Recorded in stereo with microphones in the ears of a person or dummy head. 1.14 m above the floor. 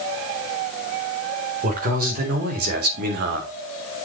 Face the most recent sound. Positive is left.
turn(degrees=-60)  # may be behind; listen again after turning